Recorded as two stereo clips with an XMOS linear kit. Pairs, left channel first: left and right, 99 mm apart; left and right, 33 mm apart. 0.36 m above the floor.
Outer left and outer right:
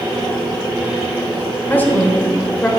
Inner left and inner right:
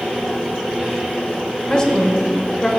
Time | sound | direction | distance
1.7 | a woman speaking | 20° left (ahead or behind) | 1.0 m